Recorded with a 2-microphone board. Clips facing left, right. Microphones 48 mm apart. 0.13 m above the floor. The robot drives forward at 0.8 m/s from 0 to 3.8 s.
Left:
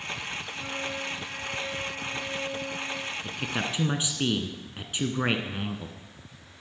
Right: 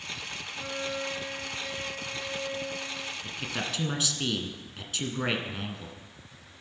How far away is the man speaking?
About 1.1 m.